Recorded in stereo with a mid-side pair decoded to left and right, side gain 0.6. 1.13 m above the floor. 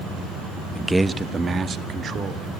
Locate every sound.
0.8 s a man speaking: 10° left, 0.8 m; by 2.5 s 40° right, 2.5 m